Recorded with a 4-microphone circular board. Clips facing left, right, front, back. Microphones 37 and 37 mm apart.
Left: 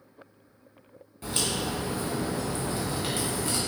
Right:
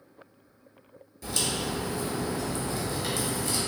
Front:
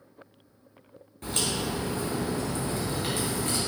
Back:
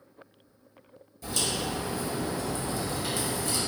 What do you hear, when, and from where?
1.2 s a crack: 35° left, 1.3 m